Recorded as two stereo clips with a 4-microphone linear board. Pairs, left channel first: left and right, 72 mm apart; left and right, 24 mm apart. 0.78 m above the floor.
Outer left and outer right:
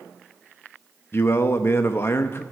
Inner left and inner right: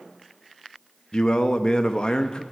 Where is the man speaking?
35° left (ahead or behind), 0.6 m.